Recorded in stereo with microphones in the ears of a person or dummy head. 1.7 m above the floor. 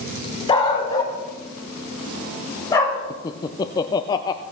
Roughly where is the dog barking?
Left.